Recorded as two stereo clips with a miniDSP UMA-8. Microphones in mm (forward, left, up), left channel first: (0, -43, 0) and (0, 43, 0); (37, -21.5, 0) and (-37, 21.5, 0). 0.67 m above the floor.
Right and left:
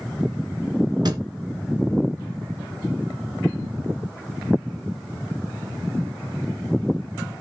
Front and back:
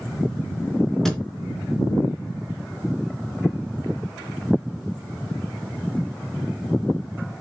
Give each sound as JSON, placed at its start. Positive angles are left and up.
{"t": 1.1, "sound": "a thud", "azimuth_deg": 55, "distance_m": 2.5}